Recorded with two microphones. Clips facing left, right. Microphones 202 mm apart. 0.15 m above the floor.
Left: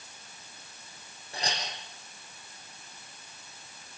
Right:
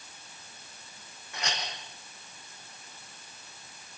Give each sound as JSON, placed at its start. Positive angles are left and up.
{"t": 1.3, "sound": "a clink", "side_deg": 30, "distance_m": 4.5}